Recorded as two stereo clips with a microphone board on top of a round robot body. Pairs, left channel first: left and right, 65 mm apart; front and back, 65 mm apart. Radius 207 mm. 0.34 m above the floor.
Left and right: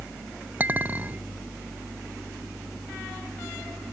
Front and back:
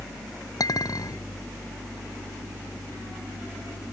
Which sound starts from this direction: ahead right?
A clink, at 0.6 s.